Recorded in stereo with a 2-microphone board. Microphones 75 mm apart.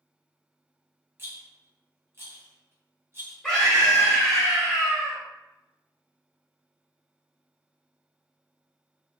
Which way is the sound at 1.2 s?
35° right (ahead or behind).